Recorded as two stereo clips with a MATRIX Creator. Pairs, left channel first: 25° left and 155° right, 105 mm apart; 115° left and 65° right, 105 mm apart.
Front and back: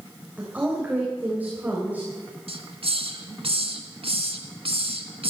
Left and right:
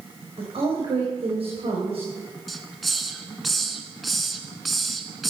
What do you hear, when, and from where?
0.4 s a woman speaking: 85° right, 3.5 m
2.5 s a hiss: 160° right, 1.7 m